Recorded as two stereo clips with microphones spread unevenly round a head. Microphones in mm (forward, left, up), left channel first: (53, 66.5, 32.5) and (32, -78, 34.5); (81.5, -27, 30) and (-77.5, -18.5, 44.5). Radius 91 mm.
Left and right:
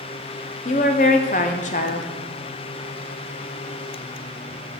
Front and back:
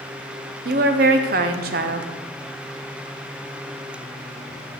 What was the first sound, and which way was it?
A woman speaking, 135° left.